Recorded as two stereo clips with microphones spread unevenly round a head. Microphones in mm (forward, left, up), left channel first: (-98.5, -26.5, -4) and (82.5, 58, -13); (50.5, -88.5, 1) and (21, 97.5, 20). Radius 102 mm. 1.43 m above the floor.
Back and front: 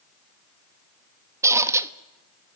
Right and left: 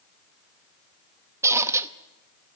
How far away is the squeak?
About 0.8 m.